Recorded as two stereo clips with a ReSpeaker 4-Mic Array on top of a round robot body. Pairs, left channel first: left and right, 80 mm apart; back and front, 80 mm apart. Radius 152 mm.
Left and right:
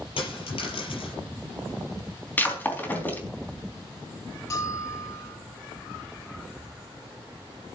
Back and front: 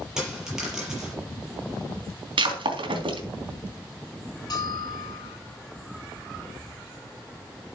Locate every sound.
0.2 s a dropped coin: 85° left, 5.5 m
2.4 s breaking glass: 20° left, 3.5 m
4.5 s a bell: 140° left, 5.5 m